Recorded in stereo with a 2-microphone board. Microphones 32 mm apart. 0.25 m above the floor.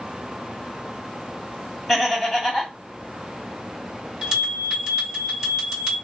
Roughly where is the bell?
Centre.